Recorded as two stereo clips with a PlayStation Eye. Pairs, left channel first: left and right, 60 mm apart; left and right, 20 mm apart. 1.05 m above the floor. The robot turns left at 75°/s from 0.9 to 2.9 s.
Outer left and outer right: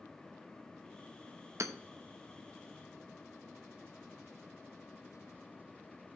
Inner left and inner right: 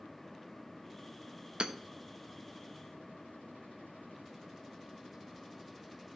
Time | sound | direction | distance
1.6 | hammering | 55° right (ahead or behind) | 0.8 m